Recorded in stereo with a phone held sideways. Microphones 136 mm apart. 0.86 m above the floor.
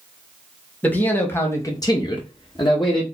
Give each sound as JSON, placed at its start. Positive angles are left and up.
{"t": 0.8, "sound": "a man speaking", "side_deg": 10, "distance_m": 1.4}